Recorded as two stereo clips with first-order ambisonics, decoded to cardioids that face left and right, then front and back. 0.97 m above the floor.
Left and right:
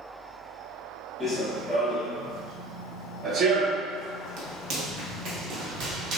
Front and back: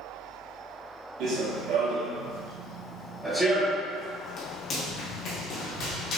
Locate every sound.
1.2 s running footsteps: 165° left, 1.6 m; by 6.2 s 40° right, 2.5 m